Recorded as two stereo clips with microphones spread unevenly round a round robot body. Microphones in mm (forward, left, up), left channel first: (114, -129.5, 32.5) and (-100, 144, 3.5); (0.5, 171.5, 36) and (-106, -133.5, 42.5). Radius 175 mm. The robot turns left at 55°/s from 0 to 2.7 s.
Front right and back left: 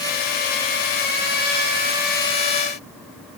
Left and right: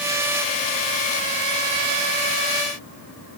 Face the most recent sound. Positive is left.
No sound to turn to.